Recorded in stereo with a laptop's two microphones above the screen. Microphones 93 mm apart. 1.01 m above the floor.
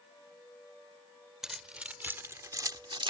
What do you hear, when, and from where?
1.4 s keys jangling: 5° right (ahead or behind); by 3.1 s 65° right (ahead or behind)